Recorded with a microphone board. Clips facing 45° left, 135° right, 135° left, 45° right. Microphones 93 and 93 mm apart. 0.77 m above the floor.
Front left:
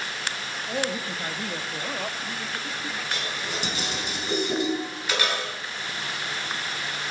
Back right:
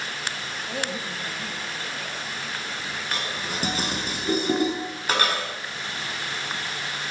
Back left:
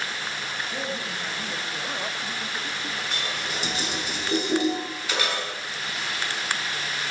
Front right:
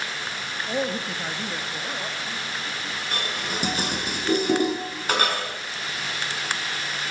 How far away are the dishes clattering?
About 5 m.